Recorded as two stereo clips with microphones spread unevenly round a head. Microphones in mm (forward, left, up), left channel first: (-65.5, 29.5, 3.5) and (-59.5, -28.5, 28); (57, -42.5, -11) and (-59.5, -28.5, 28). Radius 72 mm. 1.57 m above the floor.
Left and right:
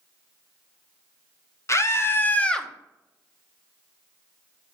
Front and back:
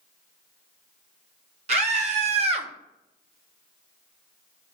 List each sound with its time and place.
1.7 s a scream: 140° left, 1.6 m; by 2.7 s 165° right, 1.0 m